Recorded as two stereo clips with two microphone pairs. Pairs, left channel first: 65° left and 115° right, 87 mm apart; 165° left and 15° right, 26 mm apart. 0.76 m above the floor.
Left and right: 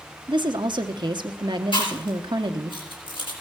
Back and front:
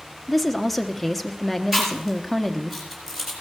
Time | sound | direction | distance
0.3 | a woman speaking | 100° right | 0.9 m
1.7 | chewing | 75° left | 4.5 m